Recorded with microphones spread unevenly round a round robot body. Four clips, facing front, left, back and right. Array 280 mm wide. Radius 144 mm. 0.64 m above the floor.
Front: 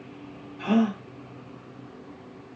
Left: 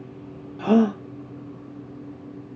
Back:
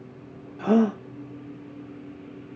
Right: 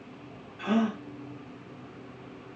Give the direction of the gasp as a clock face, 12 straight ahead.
8 o'clock.